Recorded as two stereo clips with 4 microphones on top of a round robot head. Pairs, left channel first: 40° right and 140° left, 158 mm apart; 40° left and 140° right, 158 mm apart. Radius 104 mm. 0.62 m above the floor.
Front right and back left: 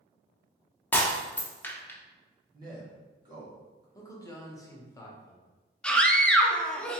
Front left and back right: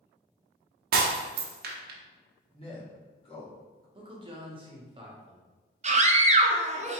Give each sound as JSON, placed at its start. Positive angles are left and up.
{"t": 0.9, "sound": "breaking glass", "azimuth_deg": -120, "distance_m": 0.7}
{"t": 2.5, "sound": "a man speaking", "azimuth_deg": 85, "distance_m": 2.0}
{"t": 4.0, "sound": "a man speaking", "azimuth_deg": -100, "distance_m": 1.1}
{"t": 5.8, "sound": "a scream", "azimuth_deg": -120, "distance_m": 0.8}